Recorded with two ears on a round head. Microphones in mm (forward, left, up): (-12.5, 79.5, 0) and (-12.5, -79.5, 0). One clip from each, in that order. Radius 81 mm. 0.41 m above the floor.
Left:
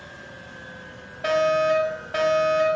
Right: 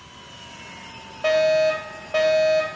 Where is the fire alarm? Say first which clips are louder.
Right 2 dB; 20° right (ahead or behind), 3 m.